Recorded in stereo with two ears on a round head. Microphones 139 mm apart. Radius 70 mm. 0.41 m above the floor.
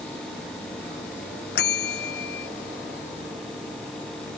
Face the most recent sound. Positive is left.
turn(degrees=80)